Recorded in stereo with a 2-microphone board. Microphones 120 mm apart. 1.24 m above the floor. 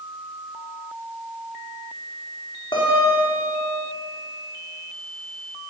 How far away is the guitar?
About 4 m.